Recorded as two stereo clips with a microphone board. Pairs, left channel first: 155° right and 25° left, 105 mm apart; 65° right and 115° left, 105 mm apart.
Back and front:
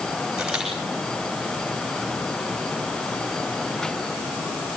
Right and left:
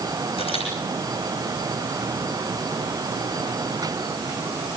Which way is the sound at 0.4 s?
60° right.